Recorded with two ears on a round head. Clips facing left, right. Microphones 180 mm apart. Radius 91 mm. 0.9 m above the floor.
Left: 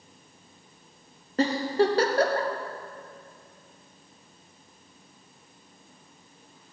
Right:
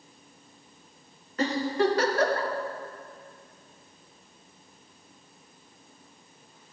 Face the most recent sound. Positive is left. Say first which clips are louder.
# left 2 dB
turn(degrees=30)  # may be behind; listen again after turning